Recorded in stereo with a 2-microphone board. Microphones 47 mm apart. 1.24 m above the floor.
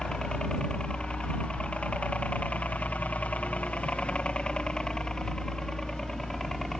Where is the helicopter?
20° left (ahead or behind); by 6.8 s 5° left (ahead or behind).